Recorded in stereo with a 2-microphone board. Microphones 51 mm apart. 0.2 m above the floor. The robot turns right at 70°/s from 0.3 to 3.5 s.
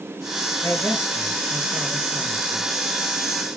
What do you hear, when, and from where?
0.6 s a man speaking: 125° left, 3.5 m; by 2.6 s 95° right, 3.5 m